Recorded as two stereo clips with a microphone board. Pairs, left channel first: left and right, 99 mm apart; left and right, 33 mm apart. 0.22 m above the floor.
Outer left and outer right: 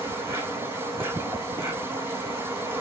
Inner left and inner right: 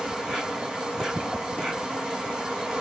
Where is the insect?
20° right (ahead or behind), 3 m.